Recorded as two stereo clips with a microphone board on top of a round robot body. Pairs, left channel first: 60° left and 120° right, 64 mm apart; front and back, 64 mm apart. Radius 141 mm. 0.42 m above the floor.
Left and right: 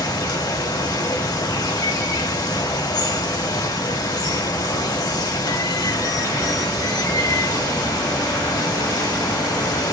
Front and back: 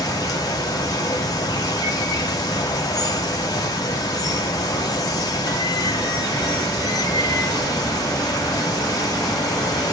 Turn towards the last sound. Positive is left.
turn(degrees=30)